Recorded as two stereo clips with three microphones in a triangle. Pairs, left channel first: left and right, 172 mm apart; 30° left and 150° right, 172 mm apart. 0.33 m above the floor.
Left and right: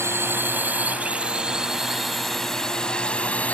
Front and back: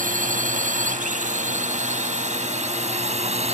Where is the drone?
160° right; by 3.5 s 170° left.